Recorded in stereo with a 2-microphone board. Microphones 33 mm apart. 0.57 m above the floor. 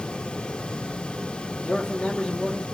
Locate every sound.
1.6 s a man speaking: 25° left (ahead or behind), 1.5 m